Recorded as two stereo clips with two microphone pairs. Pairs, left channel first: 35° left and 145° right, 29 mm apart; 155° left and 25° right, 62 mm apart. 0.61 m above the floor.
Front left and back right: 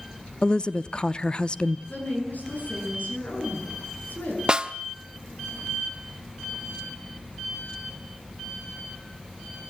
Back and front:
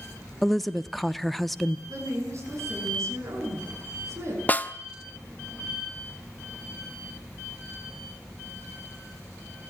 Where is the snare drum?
170° right, 0.8 m.